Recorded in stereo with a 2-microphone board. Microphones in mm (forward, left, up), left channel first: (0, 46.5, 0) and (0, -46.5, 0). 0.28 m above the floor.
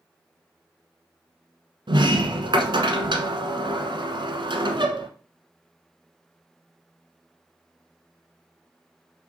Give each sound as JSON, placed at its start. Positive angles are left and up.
{"t": 1.9, "sound": "a sliding door", "side_deg": -65, "distance_m": 1.3}